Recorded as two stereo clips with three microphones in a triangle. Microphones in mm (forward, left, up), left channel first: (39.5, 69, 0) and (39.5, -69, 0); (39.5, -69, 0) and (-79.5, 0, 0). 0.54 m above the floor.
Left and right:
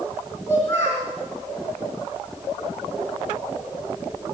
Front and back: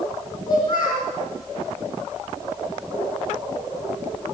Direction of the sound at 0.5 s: 25° left.